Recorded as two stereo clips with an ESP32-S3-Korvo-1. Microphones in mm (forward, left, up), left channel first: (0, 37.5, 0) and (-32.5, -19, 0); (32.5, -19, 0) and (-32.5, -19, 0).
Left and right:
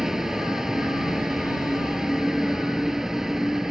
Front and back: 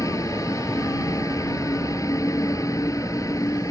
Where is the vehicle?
35° right.